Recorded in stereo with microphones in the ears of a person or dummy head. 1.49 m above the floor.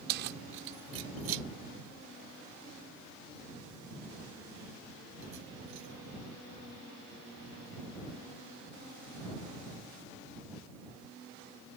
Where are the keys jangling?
55° right (ahead or behind); by 5.9 s 65° right (ahead or behind).